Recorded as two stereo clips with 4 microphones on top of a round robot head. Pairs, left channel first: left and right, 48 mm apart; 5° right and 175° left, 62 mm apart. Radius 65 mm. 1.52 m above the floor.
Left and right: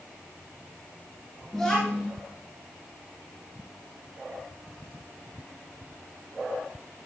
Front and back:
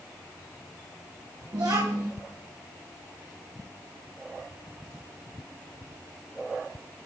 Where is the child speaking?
170° left, 2 m.